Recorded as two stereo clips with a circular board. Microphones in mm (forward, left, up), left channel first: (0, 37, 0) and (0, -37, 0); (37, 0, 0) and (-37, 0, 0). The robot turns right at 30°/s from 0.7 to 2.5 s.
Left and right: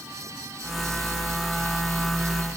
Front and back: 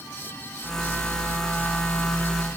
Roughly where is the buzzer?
I don't hear a buzzer.